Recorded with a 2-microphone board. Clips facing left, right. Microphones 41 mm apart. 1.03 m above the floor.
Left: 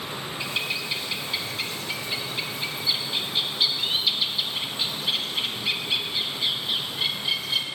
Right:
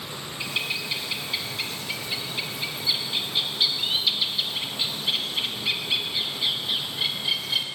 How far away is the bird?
About 0.8 m.